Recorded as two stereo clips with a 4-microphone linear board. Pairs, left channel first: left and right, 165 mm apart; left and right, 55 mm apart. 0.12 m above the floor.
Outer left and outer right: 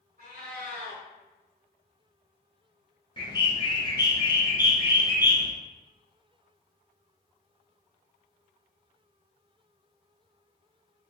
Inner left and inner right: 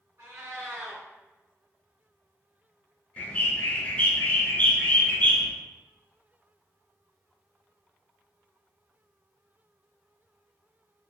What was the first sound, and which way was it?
A cat meowing, 55° right (ahead or behind).